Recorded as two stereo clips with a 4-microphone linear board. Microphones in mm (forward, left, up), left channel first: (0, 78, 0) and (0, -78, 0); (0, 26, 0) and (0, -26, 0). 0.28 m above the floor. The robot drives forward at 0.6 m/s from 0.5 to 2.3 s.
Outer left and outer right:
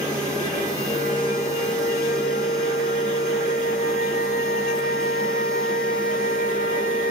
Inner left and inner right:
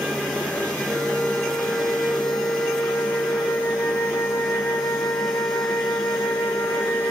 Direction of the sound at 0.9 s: 50° left (ahead or behind).